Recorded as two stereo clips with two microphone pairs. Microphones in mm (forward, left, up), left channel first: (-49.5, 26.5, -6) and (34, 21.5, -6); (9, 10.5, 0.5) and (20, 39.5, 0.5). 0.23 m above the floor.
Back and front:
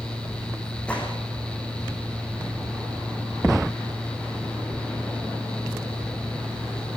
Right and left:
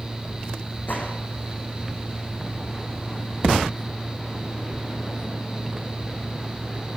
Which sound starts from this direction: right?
A gunshot, at 0.9 s.